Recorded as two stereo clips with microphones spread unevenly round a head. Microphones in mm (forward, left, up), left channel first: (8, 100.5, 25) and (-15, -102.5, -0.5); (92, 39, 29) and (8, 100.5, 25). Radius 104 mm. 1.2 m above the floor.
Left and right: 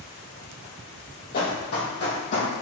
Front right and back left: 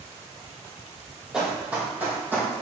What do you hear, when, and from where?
1.3 s running footsteps: 60° left, 1.9 m; by 2.5 s 75° left, 2.5 m